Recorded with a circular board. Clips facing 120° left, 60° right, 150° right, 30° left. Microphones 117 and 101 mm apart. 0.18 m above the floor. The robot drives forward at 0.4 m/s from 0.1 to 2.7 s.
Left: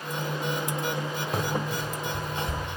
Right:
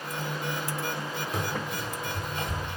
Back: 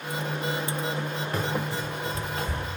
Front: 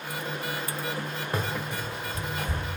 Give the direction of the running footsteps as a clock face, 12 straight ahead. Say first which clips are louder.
Left 4 dB, back 2 dB; 9 o'clock.